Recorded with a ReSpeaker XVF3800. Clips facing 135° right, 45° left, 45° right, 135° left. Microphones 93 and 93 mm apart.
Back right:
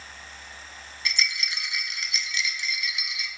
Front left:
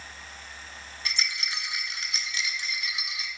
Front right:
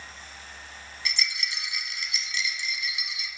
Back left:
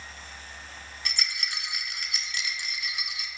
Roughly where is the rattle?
Left.